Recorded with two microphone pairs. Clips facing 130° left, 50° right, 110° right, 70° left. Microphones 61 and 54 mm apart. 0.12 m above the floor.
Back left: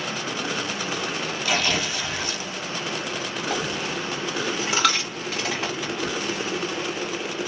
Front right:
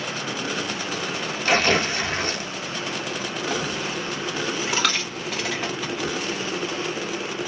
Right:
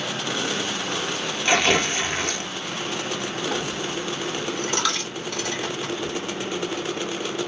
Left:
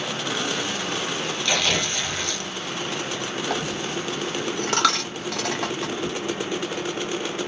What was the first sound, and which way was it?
Tearing paper, 60° right.